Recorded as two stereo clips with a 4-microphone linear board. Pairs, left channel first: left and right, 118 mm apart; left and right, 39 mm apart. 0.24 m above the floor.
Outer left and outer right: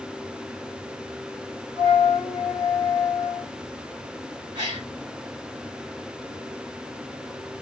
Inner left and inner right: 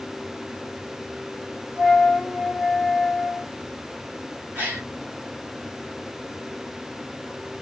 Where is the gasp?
35° right (ahead or behind), 3 m.